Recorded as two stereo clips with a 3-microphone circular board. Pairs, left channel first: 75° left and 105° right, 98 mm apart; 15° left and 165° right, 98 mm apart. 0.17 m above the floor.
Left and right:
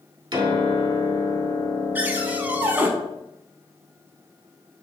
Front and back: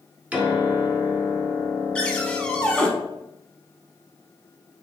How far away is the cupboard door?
About 0.5 m.